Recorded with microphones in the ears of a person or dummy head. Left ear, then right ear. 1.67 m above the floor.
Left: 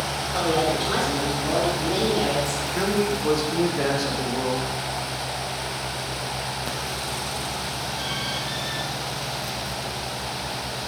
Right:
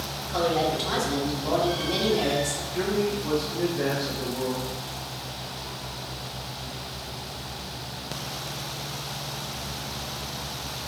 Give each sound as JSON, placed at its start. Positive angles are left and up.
{"t": 0.2, "sound": "a woman speaking", "side_deg": -75, "distance_m": 1.8}
{"t": 2.7, "sound": "a man speaking", "side_deg": 70, "distance_m": 1.0}